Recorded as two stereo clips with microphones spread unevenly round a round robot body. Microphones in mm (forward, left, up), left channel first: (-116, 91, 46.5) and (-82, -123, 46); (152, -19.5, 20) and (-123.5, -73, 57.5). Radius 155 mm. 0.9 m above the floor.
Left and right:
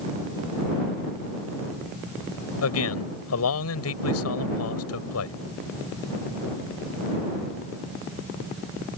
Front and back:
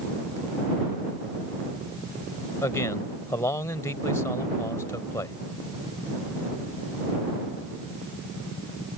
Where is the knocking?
No knocking in this recording.